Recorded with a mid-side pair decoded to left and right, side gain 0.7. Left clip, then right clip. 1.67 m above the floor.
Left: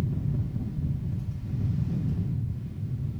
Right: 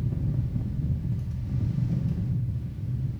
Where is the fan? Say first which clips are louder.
Left 1 dB; 25° right, 0.8 m.